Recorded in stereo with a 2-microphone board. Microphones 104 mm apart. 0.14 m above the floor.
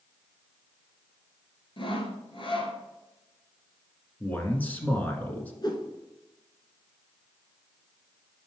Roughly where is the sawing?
Left.